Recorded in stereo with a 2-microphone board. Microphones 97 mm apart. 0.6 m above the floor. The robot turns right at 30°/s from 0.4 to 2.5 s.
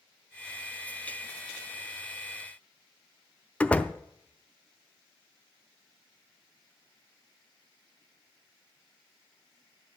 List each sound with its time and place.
3.6 s a door slam: 15° left (ahead or behind), 0.6 m